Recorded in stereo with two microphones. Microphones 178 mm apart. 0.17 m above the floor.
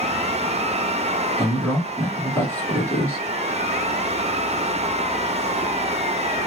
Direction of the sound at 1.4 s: 10° left (ahead or behind).